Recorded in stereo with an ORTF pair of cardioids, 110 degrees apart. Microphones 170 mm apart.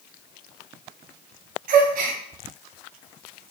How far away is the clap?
I don't hear a clap.